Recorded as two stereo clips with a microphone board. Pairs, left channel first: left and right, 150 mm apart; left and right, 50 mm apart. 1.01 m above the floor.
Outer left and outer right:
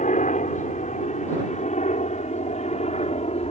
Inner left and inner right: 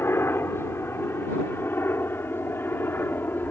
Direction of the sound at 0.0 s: 55° left (ahead or behind).